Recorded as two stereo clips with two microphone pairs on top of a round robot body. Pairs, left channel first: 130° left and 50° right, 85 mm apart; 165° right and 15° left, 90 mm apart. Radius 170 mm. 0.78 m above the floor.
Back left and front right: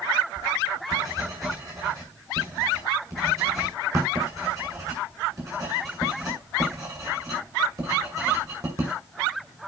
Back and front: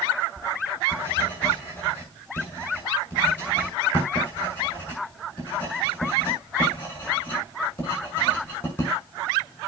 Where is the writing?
100° right, 6.5 m.